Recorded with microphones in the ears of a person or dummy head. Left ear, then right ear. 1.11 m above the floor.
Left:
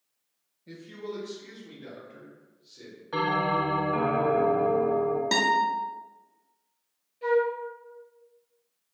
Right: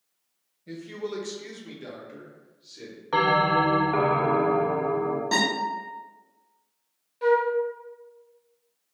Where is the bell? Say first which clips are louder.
Right 5 dB; 30° right (ahead or behind), 0.5 m.